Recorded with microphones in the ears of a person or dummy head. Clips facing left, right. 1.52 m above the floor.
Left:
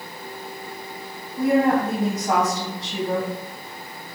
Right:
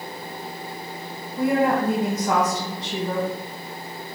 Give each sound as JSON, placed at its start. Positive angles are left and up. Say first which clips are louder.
{"t": 1.4, "sound": "a woman speaking", "louder": "left 2 dB", "side_deg": -70, "distance_m": 1.5}